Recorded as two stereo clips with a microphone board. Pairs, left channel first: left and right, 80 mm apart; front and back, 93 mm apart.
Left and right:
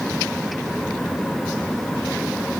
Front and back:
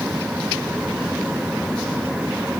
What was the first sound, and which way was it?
Only background noise.